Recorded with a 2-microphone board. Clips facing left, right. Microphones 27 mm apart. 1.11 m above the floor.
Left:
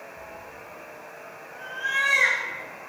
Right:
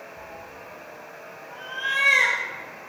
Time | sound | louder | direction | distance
0.2 | a cat meowing | right 1 dB | 65° right (ahead or behind) | 4 m